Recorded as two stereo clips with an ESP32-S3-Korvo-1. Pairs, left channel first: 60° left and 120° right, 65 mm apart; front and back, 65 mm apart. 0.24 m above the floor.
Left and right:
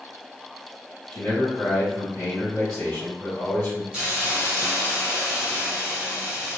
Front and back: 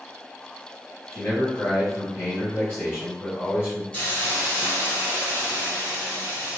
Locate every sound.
1.1 s a man speaking: 10° left, 1.5 m
3.9 s a hiss: 55° right, 1.8 m